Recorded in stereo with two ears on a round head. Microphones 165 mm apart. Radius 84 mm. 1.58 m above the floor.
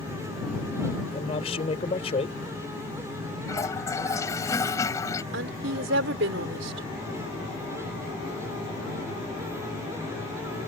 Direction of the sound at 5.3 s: 80° right.